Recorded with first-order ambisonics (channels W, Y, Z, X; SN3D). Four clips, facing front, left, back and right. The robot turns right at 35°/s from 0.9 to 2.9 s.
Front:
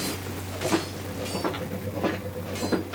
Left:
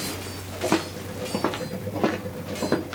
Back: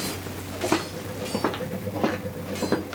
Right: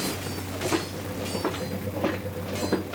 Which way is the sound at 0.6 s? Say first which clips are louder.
Left 4 dB, back 1 dB; 120° left.